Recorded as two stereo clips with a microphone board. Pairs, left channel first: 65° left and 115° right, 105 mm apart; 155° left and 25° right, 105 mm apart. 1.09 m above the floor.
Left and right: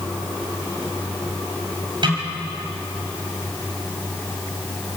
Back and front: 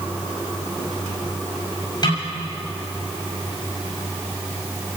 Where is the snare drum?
155° right, 6 m.